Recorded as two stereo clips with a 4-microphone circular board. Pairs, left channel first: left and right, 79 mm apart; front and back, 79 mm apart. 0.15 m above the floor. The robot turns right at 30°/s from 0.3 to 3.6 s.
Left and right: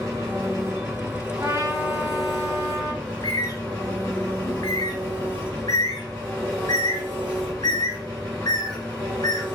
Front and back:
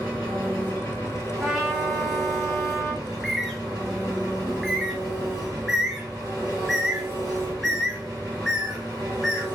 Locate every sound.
0.0 s an engine running: 65° right, 1.8 m; by 9.5 s 35° left, 1.8 m
1.4 s a trumpet: 95° right, 1.3 m; by 2.9 s 50° right, 1.3 m
3.0 s a bird: 70° left, 1.7 m; by 9.4 s 90° left, 1.7 m